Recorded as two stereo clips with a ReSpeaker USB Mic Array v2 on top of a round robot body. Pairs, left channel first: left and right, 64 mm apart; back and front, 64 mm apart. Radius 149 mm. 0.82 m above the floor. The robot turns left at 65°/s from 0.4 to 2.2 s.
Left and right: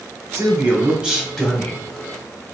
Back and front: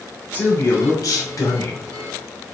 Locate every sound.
0.3 s a man speaking: 125° right, 1.3 m; by 1.8 s 140° left, 1.3 m